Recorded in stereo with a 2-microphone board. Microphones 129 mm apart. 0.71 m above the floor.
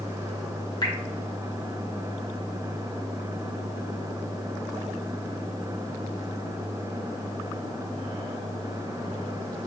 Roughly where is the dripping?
Left.